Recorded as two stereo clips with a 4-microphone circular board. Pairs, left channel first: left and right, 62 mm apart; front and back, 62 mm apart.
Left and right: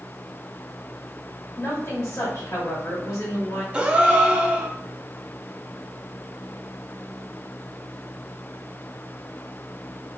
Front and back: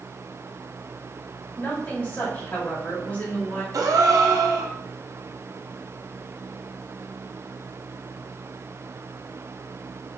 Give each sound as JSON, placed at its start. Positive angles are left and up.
{"t": 1.6, "sound": "a woman speaking", "azimuth_deg": 65, "distance_m": 1.6}
{"t": 3.7, "sound": "a gasp", "azimuth_deg": -165, "distance_m": 0.5}